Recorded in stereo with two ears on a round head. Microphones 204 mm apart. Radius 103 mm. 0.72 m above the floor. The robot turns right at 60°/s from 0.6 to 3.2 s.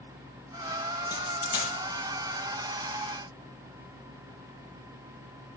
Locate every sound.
1.1 s a dropped coin: 15° left (ahead or behind), 7.5 m; by 1.7 s 55° left (ahead or behind), 7.5 m